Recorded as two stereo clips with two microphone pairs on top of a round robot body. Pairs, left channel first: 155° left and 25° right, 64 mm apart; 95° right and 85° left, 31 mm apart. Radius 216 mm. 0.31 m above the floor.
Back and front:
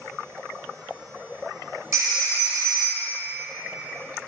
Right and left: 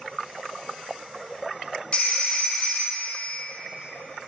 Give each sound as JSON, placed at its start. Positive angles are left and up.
{"t": 1.9, "sound": "a phone ringing", "azimuth_deg": -40, "distance_m": 1.4}